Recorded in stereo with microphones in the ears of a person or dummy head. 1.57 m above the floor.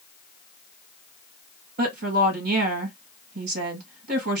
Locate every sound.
1.8 s a woman speaking: 55° right (ahead or behind), 2.5 m